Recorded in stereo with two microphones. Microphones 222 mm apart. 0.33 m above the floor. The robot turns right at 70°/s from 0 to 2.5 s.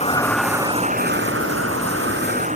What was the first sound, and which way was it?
A vehicle, 150° left.